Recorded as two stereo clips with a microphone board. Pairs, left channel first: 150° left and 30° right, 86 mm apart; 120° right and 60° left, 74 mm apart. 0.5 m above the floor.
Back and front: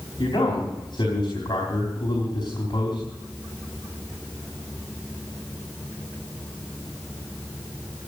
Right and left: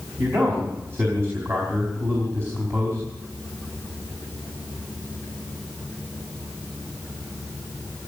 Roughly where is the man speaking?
Behind left.